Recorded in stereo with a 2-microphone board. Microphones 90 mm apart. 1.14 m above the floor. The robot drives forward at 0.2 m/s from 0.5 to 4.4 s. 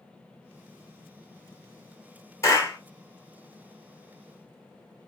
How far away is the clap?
About 1.5 m.